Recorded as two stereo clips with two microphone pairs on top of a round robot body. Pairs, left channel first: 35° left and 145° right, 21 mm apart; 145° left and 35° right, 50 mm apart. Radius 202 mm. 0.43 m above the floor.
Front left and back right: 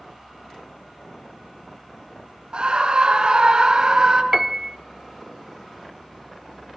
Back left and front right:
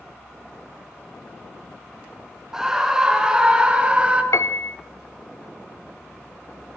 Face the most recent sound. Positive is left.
turn(degrees=150)